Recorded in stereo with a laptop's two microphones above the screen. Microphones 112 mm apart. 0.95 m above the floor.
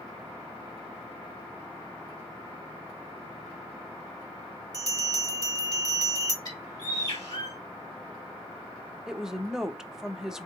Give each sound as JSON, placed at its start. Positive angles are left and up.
{"t": 4.7, "sound": "a bell", "side_deg": -35, "distance_m": 0.8}
{"t": 6.5, "sound": "a bird", "side_deg": 30, "distance_m": 1.9}
{"t": 9.1, "sound": "a woman speaking", "side_deg": -5, "distance_m": 0.5}